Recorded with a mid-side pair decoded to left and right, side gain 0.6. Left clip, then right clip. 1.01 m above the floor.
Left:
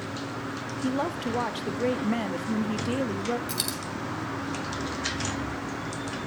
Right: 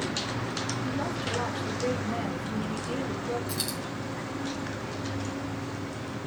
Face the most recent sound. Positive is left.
turn(degrees=25)